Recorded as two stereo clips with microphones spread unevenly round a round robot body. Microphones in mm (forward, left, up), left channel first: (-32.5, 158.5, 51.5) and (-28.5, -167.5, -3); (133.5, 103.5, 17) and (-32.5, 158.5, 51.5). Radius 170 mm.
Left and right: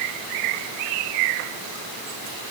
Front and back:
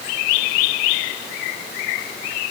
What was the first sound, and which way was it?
Only background noise.